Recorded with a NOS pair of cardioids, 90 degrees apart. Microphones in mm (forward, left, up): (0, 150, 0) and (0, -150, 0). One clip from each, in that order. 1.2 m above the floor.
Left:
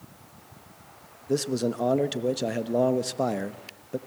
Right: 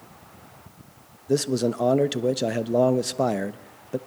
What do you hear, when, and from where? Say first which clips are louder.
1.3 s a man speaking: right 3 dB; 15° right, 1.0 m